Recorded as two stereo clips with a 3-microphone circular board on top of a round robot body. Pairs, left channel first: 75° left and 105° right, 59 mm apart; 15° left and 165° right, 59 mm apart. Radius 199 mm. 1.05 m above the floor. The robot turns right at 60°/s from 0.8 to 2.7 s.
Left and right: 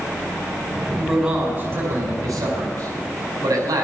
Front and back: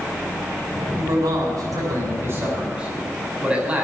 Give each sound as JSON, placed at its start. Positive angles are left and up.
{"t": 1.0, "sound": "a man speaking", "azimuth_deg": 160, "distance_m": 5.0}